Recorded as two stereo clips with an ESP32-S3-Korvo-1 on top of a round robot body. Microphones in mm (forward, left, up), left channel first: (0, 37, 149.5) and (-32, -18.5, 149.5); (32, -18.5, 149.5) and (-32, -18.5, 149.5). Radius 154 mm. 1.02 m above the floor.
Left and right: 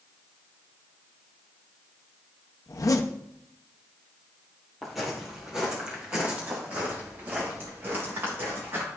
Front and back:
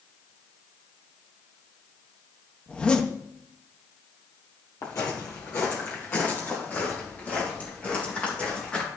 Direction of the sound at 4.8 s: 30° right.